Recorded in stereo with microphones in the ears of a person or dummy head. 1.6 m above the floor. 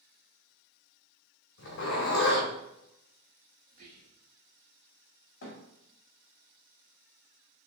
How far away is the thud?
About 1.7 m.